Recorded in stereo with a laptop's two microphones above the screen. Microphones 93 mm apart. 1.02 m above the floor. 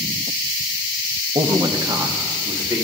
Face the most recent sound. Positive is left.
turn(degrees=-45)  # may be behind; listen again after turning